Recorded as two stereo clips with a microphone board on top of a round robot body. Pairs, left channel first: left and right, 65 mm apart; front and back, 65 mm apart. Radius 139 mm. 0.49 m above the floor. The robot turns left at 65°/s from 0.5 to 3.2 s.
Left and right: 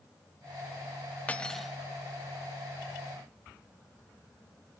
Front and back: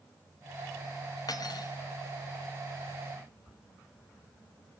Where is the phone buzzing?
I don't hear a phone buzzing.